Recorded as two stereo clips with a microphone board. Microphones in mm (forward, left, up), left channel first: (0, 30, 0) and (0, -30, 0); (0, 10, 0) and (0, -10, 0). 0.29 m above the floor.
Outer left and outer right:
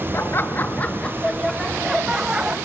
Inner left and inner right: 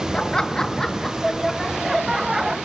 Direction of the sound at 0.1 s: 45° left (ahead or behind).